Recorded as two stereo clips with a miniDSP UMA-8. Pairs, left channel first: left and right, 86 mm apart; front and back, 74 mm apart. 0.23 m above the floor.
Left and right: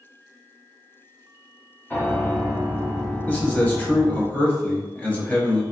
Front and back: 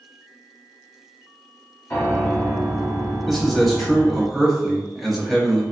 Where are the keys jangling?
I don't hear keys jangling.